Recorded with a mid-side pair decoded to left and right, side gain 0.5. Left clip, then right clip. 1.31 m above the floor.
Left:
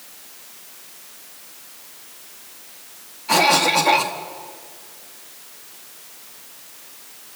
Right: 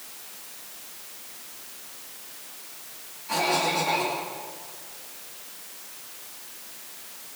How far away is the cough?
About 3 m.